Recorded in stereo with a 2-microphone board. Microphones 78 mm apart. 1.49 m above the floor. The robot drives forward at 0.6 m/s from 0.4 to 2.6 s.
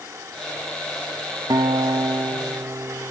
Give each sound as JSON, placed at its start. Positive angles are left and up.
{"t": 1.5, "sound": "a guitar", "side_deg": -55, "distance_m": 0.8}